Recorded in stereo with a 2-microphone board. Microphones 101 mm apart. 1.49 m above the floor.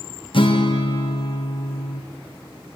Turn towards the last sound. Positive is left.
turn(degrees=65)  # may be behind; listen again after turning